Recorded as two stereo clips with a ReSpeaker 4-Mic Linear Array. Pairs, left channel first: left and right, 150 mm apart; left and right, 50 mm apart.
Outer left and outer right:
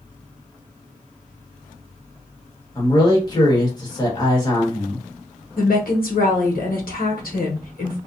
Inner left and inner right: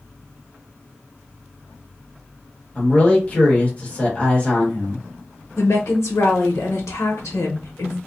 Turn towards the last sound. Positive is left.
turn(degrees=70)  # may be behind; listen again after turning